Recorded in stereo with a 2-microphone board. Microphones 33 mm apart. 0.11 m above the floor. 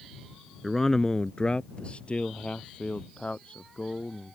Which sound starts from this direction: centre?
A man speaking, at 0.6 s.